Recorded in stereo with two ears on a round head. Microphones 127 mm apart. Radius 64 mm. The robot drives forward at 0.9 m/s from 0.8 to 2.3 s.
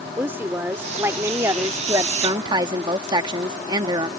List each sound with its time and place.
0.2 s a woman speaking: 15° right (ahead or behind); by 4.1 s 30° right (ahead or behind)